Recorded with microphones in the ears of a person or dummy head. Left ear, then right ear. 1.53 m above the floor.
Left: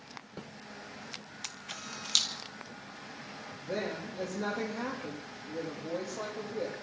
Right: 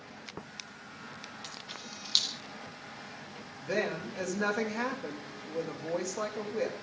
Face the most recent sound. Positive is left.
turn(degrees=-65)  # may be behind; listen again after turning